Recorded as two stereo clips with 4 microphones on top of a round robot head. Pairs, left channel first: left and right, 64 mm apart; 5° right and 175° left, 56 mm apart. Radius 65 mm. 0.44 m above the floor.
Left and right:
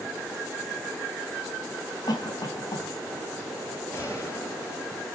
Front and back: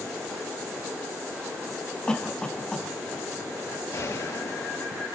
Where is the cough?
70° left, 3.5 m.